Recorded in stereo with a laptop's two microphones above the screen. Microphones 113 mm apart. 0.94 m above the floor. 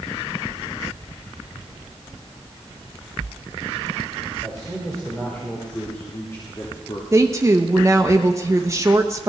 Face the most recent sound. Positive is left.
turn(degrees=-25)  # may be behind; listen again after turning